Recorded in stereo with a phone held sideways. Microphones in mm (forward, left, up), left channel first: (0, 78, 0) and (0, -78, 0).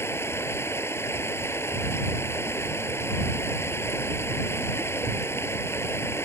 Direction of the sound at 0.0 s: 15° left (ahead or behind).